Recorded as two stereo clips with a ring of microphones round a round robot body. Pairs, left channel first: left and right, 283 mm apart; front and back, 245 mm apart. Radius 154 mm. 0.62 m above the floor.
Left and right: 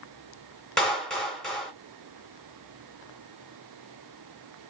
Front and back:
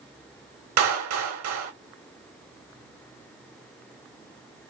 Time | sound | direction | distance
0.8 | a clap | straight behind | 1.8 m